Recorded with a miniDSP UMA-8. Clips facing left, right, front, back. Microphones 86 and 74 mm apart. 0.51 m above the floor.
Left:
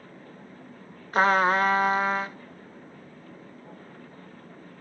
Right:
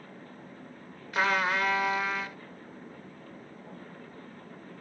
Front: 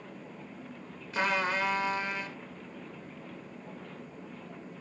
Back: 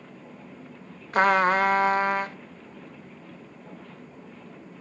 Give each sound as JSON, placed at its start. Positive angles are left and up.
{"t": 1.1, "sound": "a trumpet", "azimuth_deg": 140, "distance_m": 0.5}